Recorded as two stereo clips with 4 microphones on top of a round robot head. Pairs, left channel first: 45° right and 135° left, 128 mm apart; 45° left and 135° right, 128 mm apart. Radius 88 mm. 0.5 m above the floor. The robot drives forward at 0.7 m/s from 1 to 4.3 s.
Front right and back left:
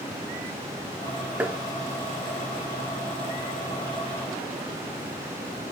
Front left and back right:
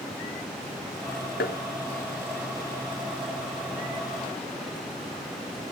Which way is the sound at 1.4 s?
60° left.